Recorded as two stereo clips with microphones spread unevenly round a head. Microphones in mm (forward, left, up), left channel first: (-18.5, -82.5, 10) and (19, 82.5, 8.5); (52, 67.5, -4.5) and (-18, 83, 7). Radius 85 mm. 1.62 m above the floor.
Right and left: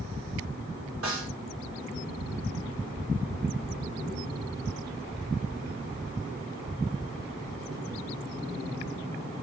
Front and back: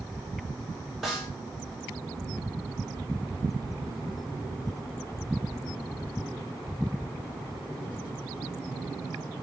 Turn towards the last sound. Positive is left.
turn(degrees=80)